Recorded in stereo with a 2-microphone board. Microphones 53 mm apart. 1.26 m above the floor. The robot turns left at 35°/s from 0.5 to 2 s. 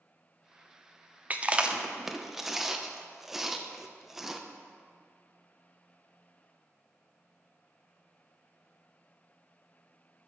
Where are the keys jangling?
I don't hear keys jangling.